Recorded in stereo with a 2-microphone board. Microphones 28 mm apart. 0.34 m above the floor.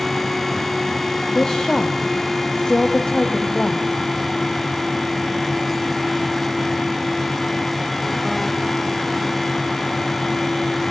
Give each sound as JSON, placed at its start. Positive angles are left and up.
{"t": 1.4, "sound": "a woman speaking", "side_deg": 30, "distance_m": 1.7}